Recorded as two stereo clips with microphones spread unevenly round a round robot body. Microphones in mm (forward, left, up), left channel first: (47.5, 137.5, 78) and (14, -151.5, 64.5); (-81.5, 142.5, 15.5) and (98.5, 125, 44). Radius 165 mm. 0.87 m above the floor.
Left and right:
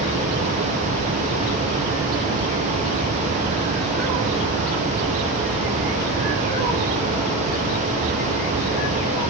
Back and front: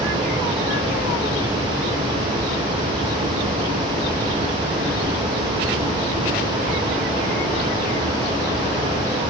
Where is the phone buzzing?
No phone buzzing in this recording.